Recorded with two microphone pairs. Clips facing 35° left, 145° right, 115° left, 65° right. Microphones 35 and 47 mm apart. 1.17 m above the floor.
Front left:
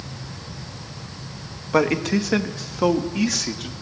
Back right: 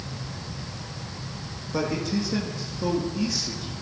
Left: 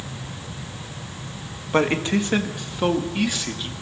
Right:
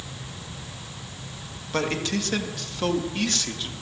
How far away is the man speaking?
About 2 m.